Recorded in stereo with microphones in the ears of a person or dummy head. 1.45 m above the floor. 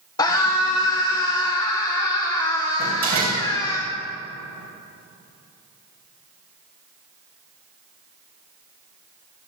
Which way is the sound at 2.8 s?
45° right (ahead or behind).